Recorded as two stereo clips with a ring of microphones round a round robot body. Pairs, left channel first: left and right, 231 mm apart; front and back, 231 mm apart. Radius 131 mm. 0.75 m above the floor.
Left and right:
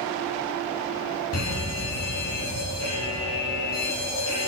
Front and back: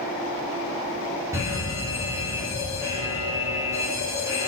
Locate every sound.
1.3 s a fire alarm: 100° left, 9 m